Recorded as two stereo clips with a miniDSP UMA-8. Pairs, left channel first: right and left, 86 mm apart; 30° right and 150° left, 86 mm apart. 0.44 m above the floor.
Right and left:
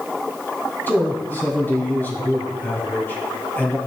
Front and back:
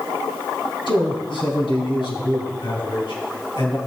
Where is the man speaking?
25° right, 3.5 m.